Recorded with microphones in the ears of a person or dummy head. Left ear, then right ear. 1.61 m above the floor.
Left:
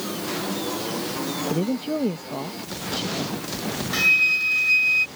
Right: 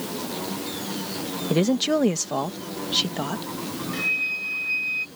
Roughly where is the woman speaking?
Right.